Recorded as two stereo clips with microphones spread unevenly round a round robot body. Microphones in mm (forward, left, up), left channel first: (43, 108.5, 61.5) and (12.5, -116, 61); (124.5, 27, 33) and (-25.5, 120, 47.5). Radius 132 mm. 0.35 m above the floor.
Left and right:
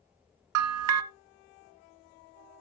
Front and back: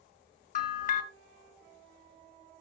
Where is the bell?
85° right, 0.7 m.